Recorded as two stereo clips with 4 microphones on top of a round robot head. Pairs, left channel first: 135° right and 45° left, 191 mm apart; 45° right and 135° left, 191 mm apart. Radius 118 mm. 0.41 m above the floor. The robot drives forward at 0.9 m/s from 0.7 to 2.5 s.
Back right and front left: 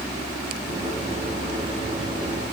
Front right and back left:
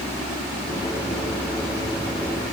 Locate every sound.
Only background noise.